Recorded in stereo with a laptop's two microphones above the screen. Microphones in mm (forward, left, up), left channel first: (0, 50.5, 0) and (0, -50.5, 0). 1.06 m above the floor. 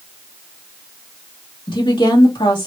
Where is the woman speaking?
55° left (ahead or behind), 1.8 m.